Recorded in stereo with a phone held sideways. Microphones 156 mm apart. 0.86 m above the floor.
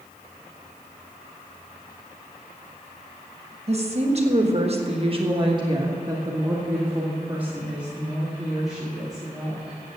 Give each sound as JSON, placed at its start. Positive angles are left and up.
{"t": 3.7, "sound": "a woman speaking", "side_deg": -40, "distance_m": 1.4}